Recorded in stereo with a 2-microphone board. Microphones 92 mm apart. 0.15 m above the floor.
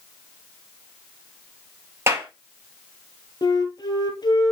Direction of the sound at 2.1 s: 30° right (ahead or behind).